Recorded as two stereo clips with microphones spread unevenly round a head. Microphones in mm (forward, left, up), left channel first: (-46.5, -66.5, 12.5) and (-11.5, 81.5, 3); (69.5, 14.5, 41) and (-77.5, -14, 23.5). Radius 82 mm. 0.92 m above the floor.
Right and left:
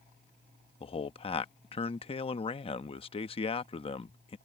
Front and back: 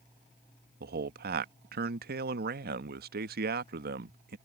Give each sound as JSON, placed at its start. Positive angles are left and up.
{"t": 0.8, "sound": "a man speaking", "azimuth_deg": -160}